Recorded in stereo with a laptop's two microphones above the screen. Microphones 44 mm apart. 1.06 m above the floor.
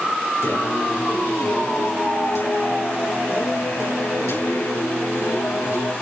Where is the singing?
85° left, 9.5 m.